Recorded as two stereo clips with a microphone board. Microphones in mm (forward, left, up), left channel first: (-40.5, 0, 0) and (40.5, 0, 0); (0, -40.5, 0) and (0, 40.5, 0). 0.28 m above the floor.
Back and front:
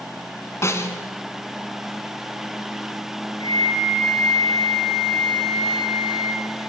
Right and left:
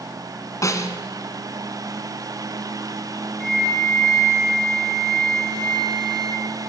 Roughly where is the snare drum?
Behind right.